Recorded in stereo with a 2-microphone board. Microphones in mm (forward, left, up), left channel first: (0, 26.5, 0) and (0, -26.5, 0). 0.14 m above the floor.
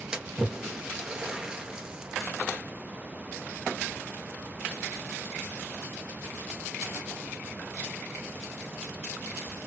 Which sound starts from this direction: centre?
A splash, at 0.1 s.